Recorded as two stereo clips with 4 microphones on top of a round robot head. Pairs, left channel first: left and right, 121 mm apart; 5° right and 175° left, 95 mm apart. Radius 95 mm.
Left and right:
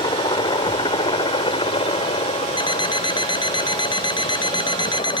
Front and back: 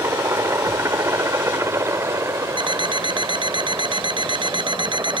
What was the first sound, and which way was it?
A helicopter, 125° left.